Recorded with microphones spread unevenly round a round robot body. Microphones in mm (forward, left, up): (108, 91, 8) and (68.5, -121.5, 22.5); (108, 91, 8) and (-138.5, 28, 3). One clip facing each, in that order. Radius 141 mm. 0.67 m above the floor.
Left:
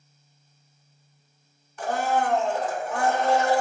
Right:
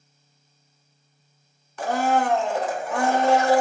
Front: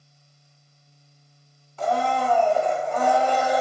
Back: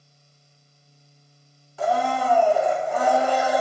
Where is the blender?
85° right, 0.7 m.